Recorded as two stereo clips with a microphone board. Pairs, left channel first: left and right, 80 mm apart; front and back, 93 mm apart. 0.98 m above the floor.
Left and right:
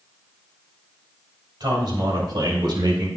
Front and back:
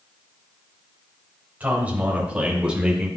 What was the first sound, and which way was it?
A man speaking, 110° right.